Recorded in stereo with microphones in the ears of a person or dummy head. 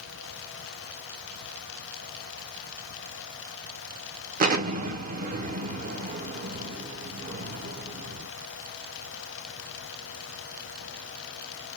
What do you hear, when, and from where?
4.4 s an explosion: 45° right (ahead or behind), 0.7 m